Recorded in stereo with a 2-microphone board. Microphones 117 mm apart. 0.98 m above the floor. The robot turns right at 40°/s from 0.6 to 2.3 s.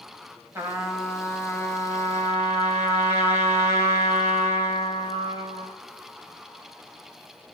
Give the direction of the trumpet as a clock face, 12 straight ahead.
1 o'clock.